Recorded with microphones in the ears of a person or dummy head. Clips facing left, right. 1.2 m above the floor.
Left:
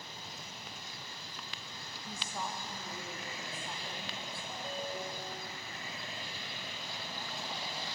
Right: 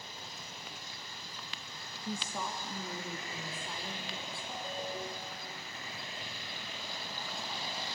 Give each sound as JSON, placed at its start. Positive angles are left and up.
{"t": 2.1, "sound": "a woman speaking", "side_deg": -80, "distance_m": 1.4}
{"t": 4.5, "sound": "a ringtone", "side_deg": -5, "distance_m": 1.7}